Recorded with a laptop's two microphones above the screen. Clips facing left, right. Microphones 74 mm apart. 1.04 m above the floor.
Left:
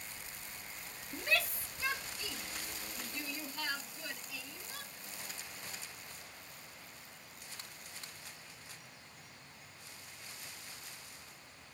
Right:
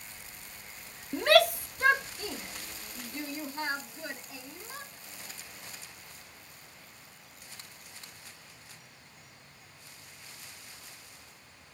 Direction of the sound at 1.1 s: 70° right (ahead or behind).